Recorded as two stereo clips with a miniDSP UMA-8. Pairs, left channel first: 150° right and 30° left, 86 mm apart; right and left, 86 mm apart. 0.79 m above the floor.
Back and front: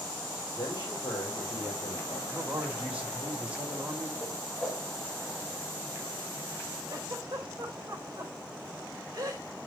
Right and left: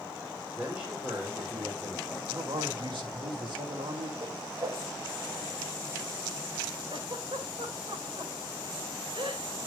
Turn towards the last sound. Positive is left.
turn(degrees=80)